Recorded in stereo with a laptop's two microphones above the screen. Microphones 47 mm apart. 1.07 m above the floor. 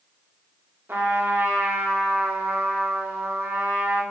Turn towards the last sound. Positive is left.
turn(degrees=-55)  # may be behind; listen again after turning